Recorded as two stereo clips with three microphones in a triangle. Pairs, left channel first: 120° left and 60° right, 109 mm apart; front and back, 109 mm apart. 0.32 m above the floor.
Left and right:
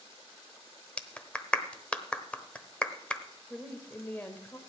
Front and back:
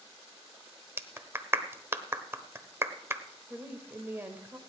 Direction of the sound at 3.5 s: 160° left.